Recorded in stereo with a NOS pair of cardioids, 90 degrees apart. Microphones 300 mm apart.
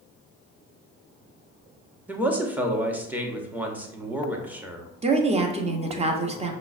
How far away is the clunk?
No clunk in this recording.